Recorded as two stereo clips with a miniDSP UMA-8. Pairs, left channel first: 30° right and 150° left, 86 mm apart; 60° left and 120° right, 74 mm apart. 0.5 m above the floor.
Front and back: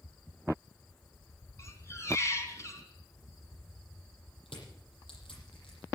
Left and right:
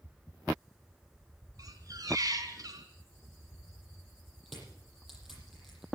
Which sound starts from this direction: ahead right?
Crushing, at 4.5 s.